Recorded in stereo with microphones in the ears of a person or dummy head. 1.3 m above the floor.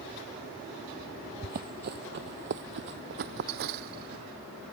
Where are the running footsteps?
45° right (ahead or behind); by 4.2 s 55° right (ahead or behind).